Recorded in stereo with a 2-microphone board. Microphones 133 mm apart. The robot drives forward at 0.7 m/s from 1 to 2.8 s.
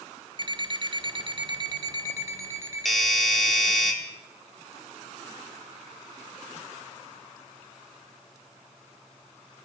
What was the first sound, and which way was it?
An alarm clock, 35° right (ahead or behind).